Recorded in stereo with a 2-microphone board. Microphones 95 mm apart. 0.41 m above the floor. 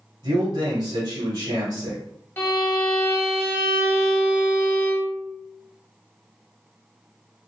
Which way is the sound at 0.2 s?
50° right (ahead or behind).